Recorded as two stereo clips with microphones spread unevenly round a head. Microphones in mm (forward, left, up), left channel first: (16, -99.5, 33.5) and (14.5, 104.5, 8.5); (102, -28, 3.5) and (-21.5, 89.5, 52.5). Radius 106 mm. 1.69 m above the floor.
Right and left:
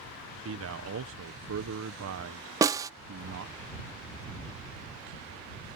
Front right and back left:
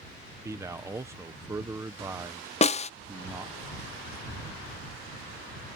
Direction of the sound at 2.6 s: 15° left.